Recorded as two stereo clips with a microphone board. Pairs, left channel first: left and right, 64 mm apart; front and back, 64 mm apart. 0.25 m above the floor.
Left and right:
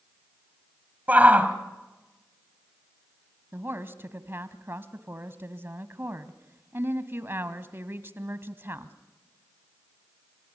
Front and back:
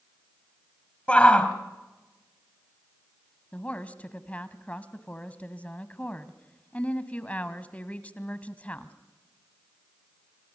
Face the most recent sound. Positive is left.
turn(degrees=-55)